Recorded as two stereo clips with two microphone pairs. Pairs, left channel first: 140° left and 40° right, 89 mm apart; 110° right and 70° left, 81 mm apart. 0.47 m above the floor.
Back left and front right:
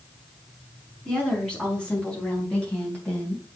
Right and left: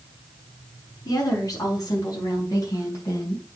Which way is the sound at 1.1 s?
140° right.